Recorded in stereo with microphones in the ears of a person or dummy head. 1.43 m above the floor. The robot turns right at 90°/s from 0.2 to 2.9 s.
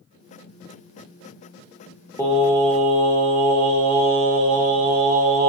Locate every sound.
2.2 s singing: 170° left, 0.5 m; by 5.5 s 125° right, 0.5 m